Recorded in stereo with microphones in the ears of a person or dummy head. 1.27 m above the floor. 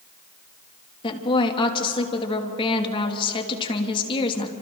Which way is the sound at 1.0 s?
30° left (ahead or behind).